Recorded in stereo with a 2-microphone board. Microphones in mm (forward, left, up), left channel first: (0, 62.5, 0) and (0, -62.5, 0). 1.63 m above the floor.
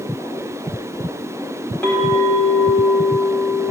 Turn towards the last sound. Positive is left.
turn(degrees=15)  # may be behind; listen again after turning